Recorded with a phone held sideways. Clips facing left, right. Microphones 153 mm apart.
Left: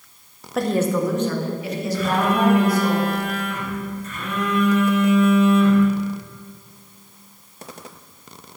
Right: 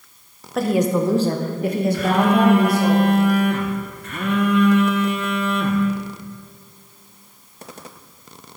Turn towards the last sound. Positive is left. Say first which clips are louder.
# right 1 dB
turn(degrees=-65)  # may be behind; listen again after turning